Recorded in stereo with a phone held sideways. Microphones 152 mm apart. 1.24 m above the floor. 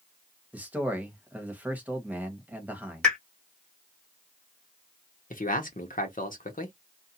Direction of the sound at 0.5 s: 10° right (ahead or behind).